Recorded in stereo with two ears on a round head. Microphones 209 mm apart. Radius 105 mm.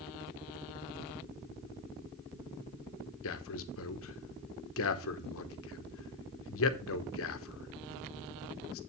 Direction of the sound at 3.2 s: 60° left (ahead or behind).